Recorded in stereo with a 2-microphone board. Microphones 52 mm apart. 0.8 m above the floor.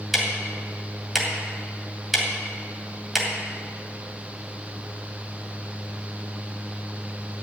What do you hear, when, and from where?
0.1 s ticking: 5° right (ahead or behind), 2.5 m